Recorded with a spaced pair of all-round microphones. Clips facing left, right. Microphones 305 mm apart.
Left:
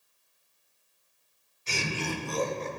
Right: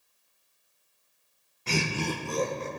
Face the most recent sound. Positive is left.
turn(degrees=-15)  # may be behind; listen again after turning